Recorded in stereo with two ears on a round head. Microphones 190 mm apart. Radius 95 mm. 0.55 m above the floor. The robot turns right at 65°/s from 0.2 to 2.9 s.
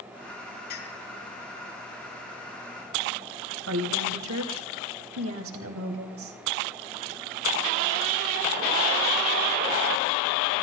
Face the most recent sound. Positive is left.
turn(degrees=-70)  # may be behind; listen again after turning